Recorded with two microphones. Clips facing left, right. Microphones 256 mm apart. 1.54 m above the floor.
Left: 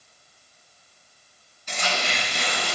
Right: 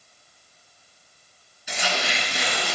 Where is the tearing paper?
10° right (ahead or behind), 2.5 m.